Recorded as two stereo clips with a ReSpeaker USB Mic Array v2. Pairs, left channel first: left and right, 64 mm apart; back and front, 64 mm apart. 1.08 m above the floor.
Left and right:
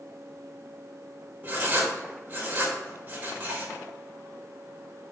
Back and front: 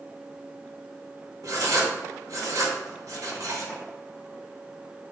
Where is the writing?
25° right, 1.9 m.